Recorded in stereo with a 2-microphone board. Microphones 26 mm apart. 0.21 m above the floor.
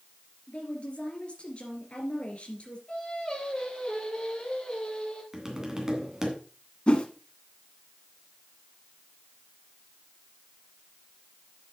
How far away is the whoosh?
About 1.3 m.